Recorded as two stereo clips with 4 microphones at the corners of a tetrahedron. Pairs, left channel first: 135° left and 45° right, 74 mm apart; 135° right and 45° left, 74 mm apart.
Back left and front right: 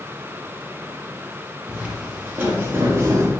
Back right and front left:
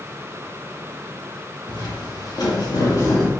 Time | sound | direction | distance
1.7 | footsteps | 120° right | 3 m